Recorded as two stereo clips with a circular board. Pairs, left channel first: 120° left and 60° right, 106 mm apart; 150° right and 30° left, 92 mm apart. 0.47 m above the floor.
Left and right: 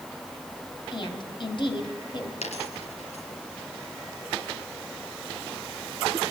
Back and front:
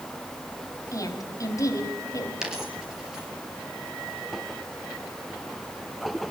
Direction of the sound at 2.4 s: 115° left.